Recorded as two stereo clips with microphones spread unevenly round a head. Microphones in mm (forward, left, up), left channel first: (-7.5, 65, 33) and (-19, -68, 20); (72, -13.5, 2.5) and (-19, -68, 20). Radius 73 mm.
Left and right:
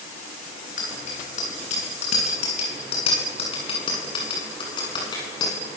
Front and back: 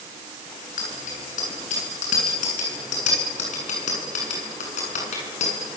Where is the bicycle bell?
45° left, 9 m; by 5.5 s 20° left, 8 m.